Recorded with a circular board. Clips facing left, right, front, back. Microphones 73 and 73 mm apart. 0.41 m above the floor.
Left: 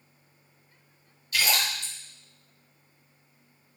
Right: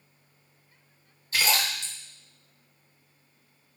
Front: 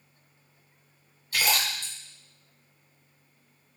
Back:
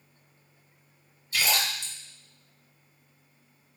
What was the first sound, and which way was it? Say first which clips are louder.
A splash: right 1 dB, front 1 dB; 35° right.